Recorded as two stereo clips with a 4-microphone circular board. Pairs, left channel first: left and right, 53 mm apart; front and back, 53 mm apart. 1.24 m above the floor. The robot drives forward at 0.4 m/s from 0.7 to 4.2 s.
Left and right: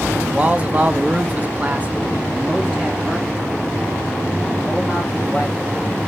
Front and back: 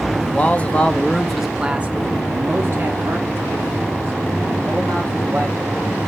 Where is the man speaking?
45° right, 0.5 m; by 6.1 s 170° right, 1.3 m.